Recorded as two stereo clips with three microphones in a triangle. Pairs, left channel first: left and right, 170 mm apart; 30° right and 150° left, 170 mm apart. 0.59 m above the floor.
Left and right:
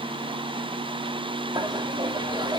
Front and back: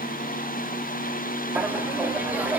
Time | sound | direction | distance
1.6 | laughter | 135° right | 1.5 m